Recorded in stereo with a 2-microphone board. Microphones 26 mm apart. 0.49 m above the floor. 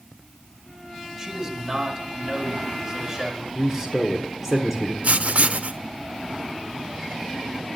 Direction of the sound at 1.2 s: 15° right (ahead or behind).